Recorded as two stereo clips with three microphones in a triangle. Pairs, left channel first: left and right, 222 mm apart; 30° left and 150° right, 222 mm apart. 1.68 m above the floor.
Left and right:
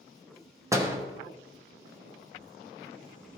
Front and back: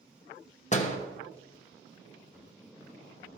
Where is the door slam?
20° right, 0.9 m.